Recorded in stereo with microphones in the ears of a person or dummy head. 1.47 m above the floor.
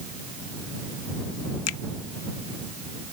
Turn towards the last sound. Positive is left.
turn(degrees=90)